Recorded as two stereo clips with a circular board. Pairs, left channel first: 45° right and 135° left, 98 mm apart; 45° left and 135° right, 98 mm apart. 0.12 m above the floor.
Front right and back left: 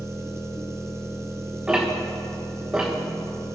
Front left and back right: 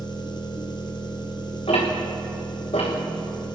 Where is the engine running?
75° left, 1.3 m.